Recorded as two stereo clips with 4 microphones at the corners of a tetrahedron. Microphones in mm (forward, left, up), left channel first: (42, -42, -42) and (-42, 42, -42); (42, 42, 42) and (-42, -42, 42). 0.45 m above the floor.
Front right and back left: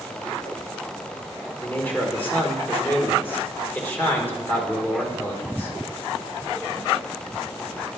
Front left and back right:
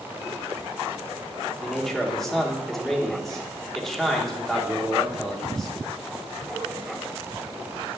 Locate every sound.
1.6 s a man speaking: 40° right, 1.3 m